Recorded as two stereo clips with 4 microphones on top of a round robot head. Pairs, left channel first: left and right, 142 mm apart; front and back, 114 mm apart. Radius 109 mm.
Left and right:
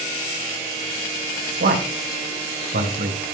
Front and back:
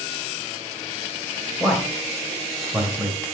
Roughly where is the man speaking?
Right.